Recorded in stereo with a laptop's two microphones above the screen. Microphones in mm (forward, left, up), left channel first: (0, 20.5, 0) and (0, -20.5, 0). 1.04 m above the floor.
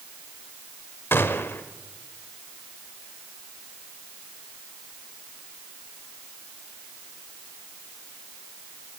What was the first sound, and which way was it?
A gunshot, 60° left (ahead or behind).